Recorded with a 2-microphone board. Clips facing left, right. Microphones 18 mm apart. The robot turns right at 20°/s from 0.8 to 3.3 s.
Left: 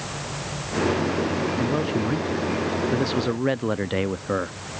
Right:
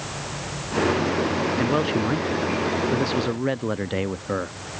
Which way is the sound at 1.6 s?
30° right.